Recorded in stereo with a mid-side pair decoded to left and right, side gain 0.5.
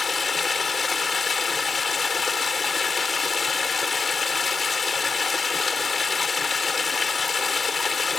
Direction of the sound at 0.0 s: 30° left.